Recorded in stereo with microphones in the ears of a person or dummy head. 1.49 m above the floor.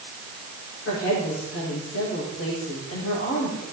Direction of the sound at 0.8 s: 80° left.